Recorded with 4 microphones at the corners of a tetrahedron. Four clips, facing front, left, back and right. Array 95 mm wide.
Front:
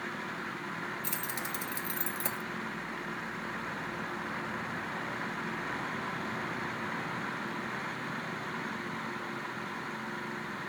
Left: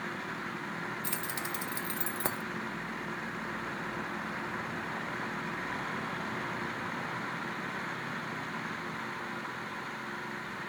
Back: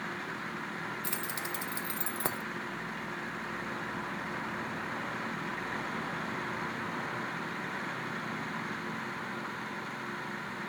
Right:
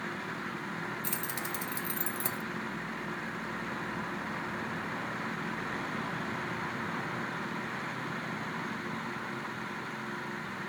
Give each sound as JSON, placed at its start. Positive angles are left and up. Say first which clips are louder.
{"t": 1.0, "sound": "keys jangling", "louder": "even, even", "azimuth_deg": 135, "distance_m": 0.9}